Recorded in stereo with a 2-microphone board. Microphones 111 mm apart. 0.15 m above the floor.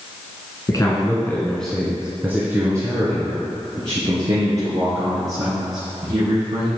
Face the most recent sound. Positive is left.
turn(degrees=-60)  # may be behind; listen again after turning